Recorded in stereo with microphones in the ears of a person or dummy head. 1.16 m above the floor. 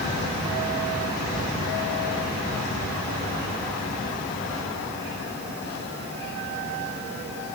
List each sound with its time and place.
Only background noise.